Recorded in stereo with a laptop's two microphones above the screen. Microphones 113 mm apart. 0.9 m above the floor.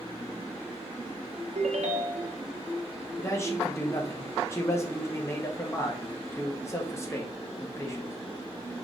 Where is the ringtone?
85° right, 0.7 m.